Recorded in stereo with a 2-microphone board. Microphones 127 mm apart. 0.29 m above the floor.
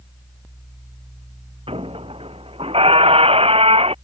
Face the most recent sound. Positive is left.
turn(degrees=-50)  # may be behind; listen again after turning